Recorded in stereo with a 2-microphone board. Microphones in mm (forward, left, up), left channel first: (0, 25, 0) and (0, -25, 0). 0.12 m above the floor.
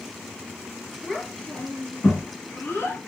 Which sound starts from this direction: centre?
A child speaking, at 1.0 s.